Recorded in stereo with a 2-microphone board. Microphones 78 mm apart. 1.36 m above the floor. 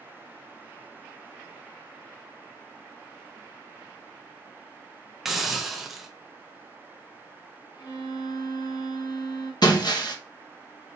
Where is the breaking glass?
60° left (ahead or behind), 0.8 m.